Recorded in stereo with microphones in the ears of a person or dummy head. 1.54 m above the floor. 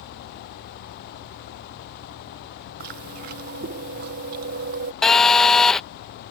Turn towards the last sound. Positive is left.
turn(degrees=5)  # may be behind; listen again after turning